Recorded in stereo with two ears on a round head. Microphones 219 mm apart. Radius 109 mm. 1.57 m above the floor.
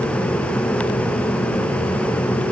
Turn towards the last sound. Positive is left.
No sound to turn to.